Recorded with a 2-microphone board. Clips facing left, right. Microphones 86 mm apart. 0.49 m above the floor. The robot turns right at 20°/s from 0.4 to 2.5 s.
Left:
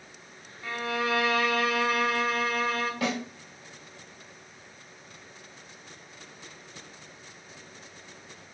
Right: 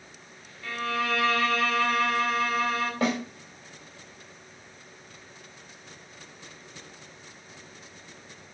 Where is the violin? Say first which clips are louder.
Even; 140° left, 0.8 m; by 2.9 s straight behind, 0.8 m.